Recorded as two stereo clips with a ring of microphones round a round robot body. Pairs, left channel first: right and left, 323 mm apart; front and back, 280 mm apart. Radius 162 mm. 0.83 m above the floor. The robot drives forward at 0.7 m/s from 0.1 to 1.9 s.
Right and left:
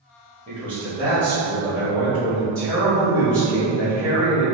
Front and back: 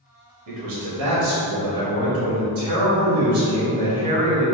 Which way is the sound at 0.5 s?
165° left.